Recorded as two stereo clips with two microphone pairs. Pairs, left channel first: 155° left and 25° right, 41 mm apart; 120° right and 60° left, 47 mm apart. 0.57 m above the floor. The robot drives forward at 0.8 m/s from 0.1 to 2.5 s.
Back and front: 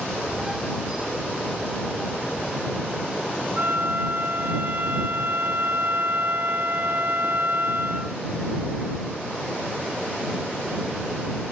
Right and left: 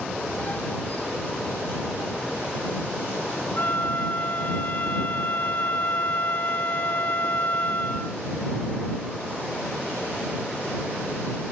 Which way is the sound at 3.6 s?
75° right.